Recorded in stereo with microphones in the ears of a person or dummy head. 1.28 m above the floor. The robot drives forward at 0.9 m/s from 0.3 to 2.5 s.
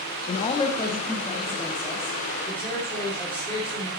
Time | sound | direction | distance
0.3 | a man speaking | 30° left (ahead or behind) | 1.0 m